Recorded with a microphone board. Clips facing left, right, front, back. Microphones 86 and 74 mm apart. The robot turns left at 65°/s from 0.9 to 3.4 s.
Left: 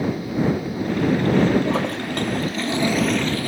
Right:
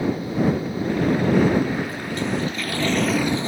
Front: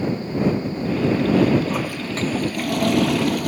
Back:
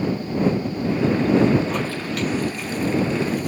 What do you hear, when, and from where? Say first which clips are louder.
1.6 s a toilet flushing: left 4 dB, even; 90° left; by 3.5 s 20° right